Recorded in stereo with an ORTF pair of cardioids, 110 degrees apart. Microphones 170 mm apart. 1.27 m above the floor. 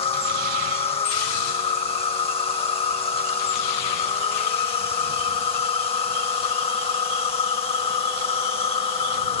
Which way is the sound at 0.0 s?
35° left.